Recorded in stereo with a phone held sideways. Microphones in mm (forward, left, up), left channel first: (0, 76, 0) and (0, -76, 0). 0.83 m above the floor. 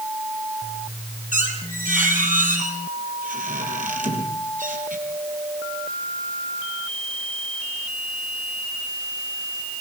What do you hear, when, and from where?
1.3 s a squeak: 65° right (ahead or behind), 4.5 m